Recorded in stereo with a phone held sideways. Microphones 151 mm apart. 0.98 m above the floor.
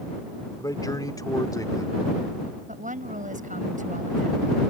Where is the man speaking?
25° left (ahead or behind).